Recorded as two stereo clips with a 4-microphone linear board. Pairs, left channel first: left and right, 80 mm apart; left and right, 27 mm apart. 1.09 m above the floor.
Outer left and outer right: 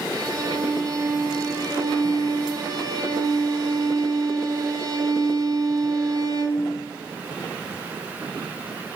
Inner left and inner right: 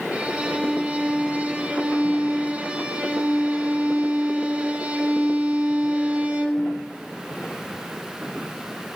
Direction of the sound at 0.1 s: 50° right (ahead or behind).